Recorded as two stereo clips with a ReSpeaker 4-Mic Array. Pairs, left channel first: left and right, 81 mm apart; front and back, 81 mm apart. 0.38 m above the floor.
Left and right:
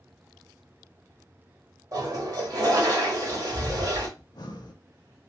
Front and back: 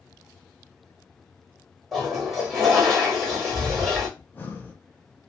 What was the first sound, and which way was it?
A toilet flushing, 90° right.